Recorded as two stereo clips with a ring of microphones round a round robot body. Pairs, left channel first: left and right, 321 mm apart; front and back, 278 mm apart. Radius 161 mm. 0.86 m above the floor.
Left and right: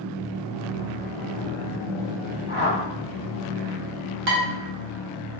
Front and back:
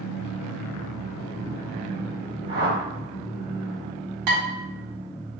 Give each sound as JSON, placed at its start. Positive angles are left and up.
{"t": 2.5, "sound": "a whoosh", "azimuth_deg": 140, "distance_m": 1.6}
{"t": 4.3, "sound": "dishes clattering", "azimuth_deg": -145, "distance_m": 0.9}